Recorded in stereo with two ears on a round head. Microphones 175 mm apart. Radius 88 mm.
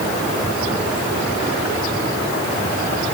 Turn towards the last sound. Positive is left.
No sound to turn to.